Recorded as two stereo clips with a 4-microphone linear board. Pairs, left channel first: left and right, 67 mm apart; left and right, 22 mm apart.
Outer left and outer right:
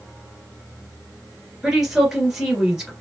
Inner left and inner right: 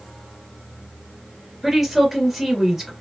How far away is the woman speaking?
About 2.0 m.